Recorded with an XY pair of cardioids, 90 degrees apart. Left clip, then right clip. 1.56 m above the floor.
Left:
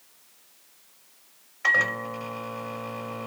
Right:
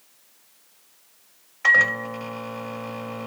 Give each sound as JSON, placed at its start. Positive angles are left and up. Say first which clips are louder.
{"t": 1.6, "sound": "a microwave", "louder": "right 5 dB", "azimuth_deg": -25, "distance_m": 0.8}